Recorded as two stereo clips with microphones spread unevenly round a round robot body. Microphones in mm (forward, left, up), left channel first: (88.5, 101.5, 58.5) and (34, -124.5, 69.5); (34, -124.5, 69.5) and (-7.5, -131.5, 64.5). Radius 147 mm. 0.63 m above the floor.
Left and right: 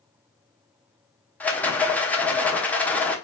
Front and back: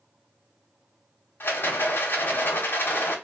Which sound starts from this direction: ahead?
A rattle, at 1.4 s.